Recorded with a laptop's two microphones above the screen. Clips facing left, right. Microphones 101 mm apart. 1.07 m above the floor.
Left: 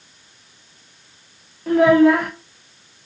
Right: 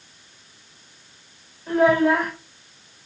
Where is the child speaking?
80° left, 0.8 m.